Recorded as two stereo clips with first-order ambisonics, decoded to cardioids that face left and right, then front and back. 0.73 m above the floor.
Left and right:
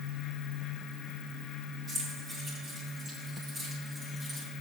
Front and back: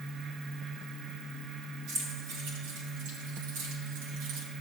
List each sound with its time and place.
1.9 s keys jangling: 155° right, 6.5 m; by 4.5 s 175° right, 3.5 m